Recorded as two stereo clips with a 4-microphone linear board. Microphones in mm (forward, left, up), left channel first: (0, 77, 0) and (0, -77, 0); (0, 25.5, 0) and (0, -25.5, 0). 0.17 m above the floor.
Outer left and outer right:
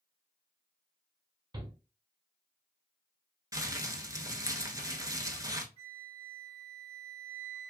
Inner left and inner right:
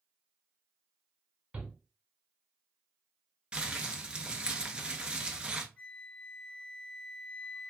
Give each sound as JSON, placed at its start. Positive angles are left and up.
{"t": 1.5, "sound": "a shout", "side_deg": -30, "distance_m": 1.2}
{"t": 3.5, "sound": "crumpling", "side_deg": -20, "distance_m": 0.7}
{"t": 5.8, "sound": "a flute", "side_deg": 30, "distance_m": 1.7}